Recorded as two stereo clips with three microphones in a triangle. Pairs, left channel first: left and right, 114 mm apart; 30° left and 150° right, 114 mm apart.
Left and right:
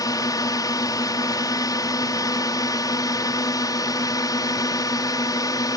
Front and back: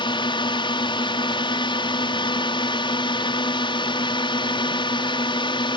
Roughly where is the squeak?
I don't hear a squeak.